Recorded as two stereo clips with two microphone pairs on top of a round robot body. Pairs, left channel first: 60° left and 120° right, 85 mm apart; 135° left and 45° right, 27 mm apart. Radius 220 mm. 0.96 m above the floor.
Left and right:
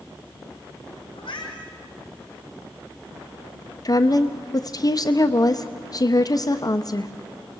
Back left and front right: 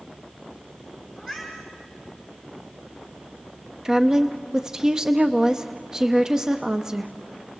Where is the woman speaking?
30° left, 1.1 m.